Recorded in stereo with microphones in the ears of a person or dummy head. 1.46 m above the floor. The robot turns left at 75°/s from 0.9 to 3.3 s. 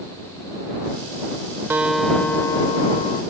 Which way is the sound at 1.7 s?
10° right (ahead or behind).